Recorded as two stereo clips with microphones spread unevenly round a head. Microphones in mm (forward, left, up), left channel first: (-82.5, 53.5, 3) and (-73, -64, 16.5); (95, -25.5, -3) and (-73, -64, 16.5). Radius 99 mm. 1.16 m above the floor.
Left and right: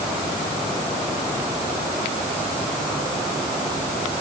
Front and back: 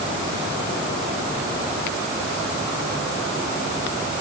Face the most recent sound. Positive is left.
No sound to turn to.